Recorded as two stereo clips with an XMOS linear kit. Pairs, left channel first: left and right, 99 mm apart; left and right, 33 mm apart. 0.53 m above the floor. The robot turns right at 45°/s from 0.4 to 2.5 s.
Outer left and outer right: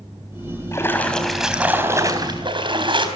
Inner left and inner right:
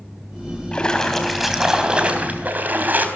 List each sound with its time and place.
0.7 s a splash: 150° left, 4 m; by 3.1 s 125° right, 4 m